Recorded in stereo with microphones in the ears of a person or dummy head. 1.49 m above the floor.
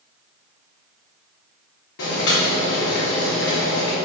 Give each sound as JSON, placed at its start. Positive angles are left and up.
{"t": 2.0, "sound": "boiling", "side_deg": 70, "distance_m": 2.0}